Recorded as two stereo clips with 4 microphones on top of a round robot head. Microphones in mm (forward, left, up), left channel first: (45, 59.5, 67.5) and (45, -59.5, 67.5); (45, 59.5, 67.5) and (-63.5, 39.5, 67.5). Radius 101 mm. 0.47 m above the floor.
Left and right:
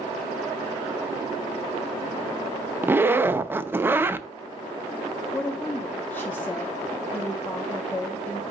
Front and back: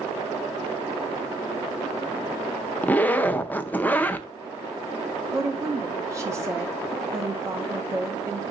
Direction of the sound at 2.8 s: 40° right.